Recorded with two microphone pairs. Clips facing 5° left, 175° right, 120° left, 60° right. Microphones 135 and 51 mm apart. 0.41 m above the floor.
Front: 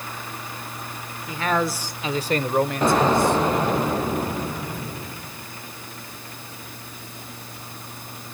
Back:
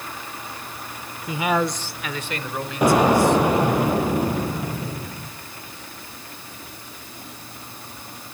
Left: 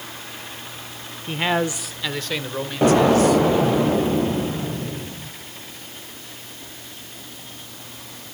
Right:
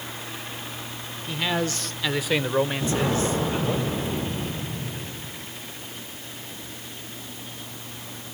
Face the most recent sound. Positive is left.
turn(degrees=110)